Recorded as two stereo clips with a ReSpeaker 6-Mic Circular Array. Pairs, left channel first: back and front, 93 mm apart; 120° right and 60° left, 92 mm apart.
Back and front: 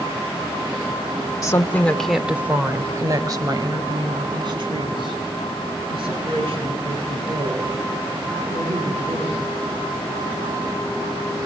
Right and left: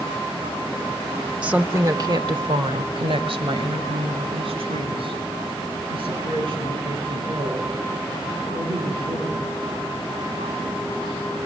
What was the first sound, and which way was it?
A woman speaking, 135° left.